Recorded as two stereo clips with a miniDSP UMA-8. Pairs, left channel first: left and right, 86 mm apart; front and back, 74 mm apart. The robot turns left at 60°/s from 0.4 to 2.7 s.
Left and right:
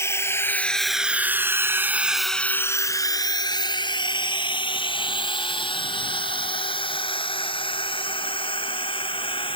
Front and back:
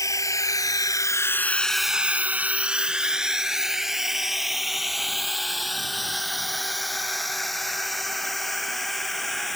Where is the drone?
35° left; by 9.6 s 90° left.